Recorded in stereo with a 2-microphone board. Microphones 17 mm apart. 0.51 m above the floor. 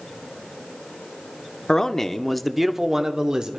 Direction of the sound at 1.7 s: 40° left (ahead or behind).